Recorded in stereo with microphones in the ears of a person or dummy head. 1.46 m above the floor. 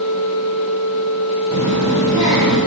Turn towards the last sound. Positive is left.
turn(degrees=-30)  # may be behind; listen again after turning